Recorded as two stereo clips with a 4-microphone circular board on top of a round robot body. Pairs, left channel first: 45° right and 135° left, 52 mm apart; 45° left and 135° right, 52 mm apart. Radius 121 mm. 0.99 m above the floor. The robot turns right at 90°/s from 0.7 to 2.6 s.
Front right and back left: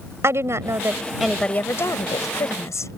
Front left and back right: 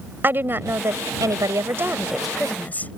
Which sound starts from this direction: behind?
A woman speaking, at 0.2 s.